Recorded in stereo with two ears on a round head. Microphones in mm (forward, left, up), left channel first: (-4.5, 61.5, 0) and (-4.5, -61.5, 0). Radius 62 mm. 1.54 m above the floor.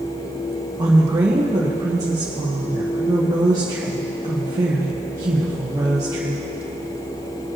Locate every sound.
0.8 s a woman speaking: 25° right (ahead or behind), 1.4 m